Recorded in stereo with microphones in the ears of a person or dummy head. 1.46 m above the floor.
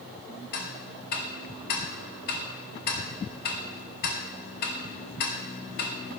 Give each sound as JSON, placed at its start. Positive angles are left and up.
{"t": 0.5, "sound": "ticking", "side_deg": 55, "distance_m": 1.0}